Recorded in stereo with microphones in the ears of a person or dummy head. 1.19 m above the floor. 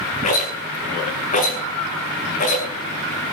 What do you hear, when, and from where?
0.2 s a rattle: 45° left (ahead or behind), 6.5 m